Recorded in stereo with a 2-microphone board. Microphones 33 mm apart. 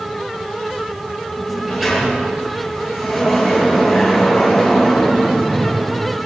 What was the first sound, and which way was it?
A sliding door, 10° right (ahead or behind).